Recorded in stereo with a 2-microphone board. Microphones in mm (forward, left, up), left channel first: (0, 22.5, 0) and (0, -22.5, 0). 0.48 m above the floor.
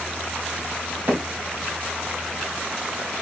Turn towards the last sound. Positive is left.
turn(degrees=-50)  # may be behind; listen again after turning